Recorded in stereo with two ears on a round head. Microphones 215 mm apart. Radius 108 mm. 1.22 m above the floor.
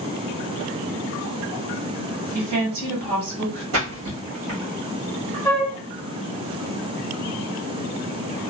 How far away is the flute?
About 0.7 m.